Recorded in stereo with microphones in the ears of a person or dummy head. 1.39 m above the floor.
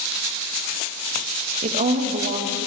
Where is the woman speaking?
40° right (ahead or behind), 1.2 m.